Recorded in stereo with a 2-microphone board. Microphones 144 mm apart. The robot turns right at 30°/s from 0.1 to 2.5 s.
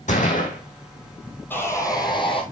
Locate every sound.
0.1 s a gunshot: 60° left (ahead or behind), 3 m; by 0.6 s 70° left (ahead or behind), 3 m
1.5 s sawing: 15° left (ahead or behind), 2 m; by 2.4 s 40° left (ahead or behind), 2 m